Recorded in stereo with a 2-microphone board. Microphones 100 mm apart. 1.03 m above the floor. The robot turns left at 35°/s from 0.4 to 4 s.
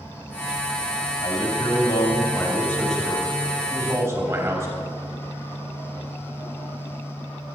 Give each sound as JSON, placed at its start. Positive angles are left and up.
{"t": 1.2, "sound": "a man speaking", "azimuth_deg": 65, "distance_m": 3.0}